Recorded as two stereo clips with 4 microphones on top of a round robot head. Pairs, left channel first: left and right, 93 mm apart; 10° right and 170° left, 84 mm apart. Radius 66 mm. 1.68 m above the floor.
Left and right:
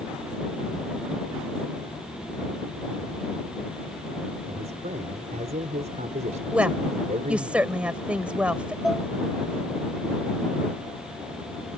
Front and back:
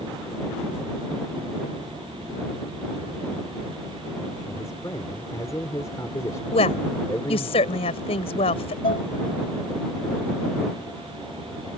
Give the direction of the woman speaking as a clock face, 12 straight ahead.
12 o'clock.